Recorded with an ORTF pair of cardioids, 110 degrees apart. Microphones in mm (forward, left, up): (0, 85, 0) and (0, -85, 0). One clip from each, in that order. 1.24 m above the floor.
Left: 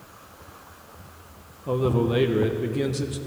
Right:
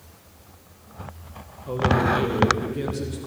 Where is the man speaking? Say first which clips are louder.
Right 2 dB; 30° left, 1.0 m.